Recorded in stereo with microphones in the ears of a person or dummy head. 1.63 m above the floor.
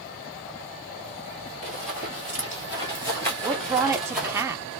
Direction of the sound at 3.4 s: 10° right (ahead or behind).